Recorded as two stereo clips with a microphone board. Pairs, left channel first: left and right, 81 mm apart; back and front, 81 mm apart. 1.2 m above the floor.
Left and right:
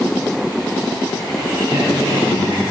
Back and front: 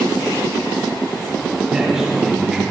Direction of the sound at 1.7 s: 80° right.